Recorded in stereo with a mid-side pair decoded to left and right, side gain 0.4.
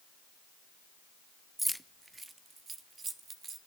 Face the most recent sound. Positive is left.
turn(degrees=-50)